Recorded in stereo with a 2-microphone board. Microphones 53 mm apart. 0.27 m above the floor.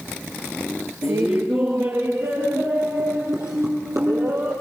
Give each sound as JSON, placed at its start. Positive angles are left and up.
{"t": 1.0, "sound": "laughter", "side_deg": -55, "distance_m": 4.0}